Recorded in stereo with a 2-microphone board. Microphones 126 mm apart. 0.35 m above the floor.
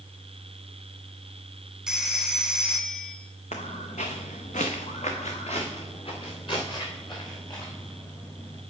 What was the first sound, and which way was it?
A phone ringing, 5° right (ahead or behind).